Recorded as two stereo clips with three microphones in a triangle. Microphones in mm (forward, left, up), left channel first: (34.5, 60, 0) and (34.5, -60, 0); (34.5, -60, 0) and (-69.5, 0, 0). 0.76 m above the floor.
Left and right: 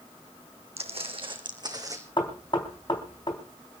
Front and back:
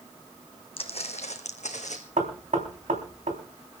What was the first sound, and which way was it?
Footsteps, 65° right.